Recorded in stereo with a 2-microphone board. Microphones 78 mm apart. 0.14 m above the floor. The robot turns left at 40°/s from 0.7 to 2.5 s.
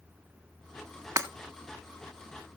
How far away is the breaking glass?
About 1.4 m.